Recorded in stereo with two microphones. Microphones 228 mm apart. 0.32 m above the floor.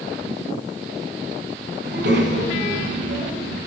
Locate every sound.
1.8 s a child speaking: 55° right (ahead or behind), 2.5 m; by 3.6 s 70° right (ahead or behind), 3.5 m